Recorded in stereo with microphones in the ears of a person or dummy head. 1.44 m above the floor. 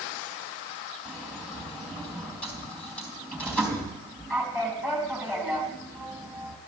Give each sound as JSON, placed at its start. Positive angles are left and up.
{"t": 1.1, "sound": "a sliding door", "side_deg": 10, "distance_m": 3.5}